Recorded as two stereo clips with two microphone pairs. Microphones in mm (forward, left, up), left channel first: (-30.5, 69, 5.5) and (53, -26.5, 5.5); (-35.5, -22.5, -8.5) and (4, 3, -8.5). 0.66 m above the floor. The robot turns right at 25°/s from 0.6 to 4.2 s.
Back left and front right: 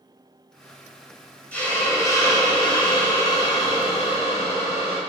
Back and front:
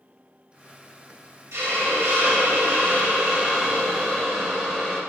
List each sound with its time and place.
1.5 s a hiss: 55° left, 0.9 m; by 5.0 s 120° left, 0.9 m